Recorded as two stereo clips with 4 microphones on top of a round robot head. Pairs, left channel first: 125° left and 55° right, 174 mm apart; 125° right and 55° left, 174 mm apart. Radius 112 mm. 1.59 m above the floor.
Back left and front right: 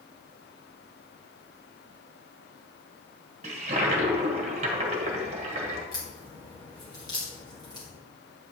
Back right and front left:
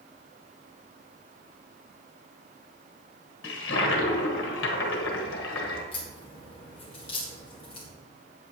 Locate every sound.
3.4 s a toilet flushing: 110° right, 1.2 m
5.9 s a crack: 175° right, 1.6 m